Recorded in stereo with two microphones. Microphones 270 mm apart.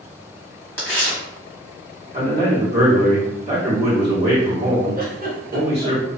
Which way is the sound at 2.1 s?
25° right (ahead or behind).